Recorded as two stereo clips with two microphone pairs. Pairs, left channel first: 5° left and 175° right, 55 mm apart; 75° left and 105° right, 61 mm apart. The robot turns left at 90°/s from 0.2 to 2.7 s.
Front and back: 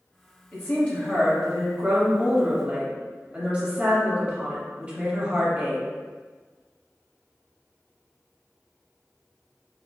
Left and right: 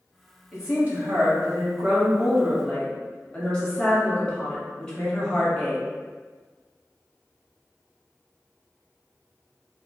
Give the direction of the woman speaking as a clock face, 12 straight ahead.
1 o'clock.